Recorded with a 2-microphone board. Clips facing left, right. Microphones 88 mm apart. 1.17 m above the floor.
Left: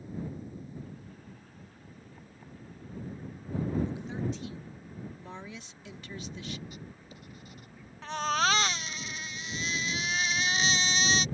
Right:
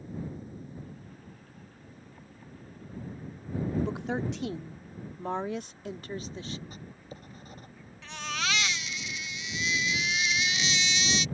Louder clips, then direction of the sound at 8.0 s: Left 7 dB; 40° left (ahead or behind).